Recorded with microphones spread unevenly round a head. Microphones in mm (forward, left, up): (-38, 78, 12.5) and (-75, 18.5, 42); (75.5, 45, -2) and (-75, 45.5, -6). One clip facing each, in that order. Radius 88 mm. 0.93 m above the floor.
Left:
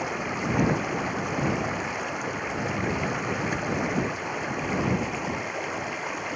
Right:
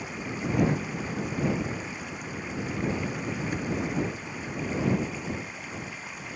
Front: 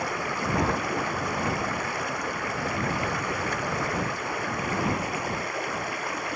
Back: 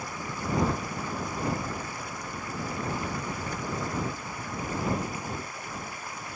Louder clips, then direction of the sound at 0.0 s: Left 5 dB, front 6 dB; 30° left.